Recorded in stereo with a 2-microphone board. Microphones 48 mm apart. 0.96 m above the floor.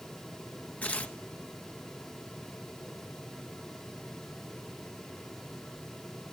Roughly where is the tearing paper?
Left.